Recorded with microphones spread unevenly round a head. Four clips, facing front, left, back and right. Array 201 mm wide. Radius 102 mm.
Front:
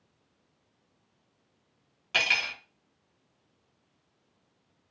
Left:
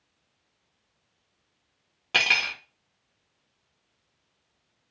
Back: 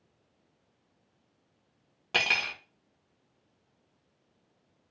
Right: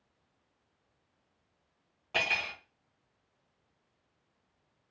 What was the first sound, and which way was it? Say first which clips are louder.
Cutlery clinking: left 6 dB, even; 115° left.